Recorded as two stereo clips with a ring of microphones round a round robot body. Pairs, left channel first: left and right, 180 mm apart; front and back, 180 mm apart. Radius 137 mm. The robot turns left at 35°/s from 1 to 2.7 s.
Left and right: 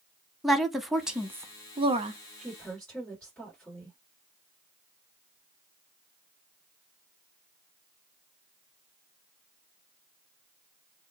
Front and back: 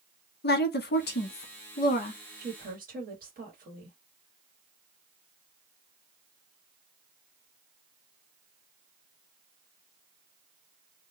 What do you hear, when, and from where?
0.4 s a woman speaking: straight ahead, 0.8 m; by 2.2 s 45° right, 0.8 m
2.4 s a woman speaking: straight behind, 1.3 m; by 4.0 s 170° left, 1.3 m